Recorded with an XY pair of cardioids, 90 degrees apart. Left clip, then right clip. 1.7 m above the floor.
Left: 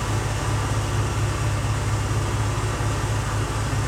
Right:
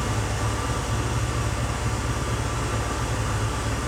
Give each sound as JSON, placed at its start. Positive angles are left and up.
{"t": 0.0, "sound": "an engine running", "azimuth_deg": 50, "distance_m": 1.0}